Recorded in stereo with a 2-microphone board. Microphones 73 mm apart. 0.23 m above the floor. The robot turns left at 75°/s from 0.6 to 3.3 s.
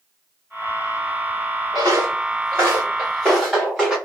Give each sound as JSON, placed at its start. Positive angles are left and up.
{"t": 1.7, "sound": "footsteps", "side_deg": -80, "distance_m": 1.7}